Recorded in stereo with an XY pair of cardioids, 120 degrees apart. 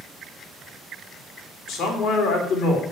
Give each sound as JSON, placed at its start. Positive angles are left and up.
{"t": 1.7, "sound": "a man speaking", "azimuth_deg": 70, "distance_m": 2.5}